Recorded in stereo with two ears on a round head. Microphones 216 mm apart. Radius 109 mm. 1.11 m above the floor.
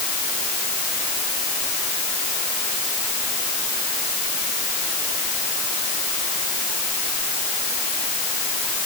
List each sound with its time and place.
Only background noise.